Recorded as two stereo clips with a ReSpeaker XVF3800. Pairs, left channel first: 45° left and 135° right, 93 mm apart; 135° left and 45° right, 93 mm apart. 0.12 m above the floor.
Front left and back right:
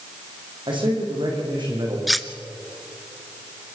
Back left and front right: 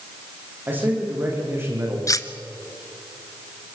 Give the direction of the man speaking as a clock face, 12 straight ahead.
4 o'clock.